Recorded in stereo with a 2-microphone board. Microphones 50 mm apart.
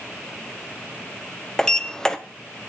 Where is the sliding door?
15° left (ahead or behind), 0.9 m.